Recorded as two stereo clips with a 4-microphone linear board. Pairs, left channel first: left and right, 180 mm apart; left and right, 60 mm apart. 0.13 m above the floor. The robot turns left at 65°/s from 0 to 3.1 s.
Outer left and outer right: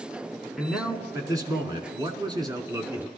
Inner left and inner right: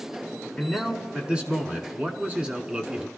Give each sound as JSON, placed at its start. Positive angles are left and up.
{"t": 0.6, "sound": "a man speaking", "side_deg": 0, "distance_m": 1.1}